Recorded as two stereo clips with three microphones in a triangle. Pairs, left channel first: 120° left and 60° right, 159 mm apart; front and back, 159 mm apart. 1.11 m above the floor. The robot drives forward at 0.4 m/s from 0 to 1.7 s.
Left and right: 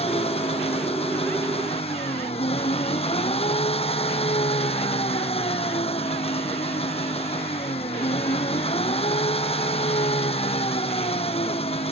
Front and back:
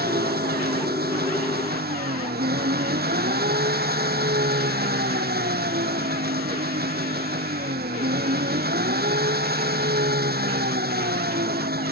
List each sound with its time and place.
0.0 s an engine running: 170° left